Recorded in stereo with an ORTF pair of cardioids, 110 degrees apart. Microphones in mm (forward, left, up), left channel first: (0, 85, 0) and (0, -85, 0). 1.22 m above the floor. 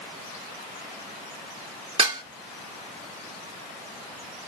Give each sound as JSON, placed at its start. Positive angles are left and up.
{"t": 2.0, "sound": "dishes clattering", "azimuth_deg": -35, "distance_m": 2.0}